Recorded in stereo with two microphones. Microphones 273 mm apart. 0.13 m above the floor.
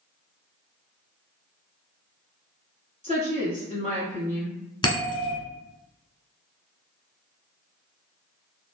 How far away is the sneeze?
No sneeze in this recording.